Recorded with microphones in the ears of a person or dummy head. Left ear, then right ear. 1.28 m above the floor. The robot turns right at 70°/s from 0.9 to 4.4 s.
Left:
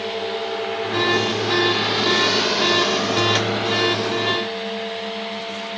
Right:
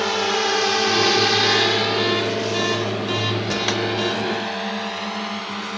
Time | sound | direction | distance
0.0 | a drone | 50° right (ahead or behind) | ?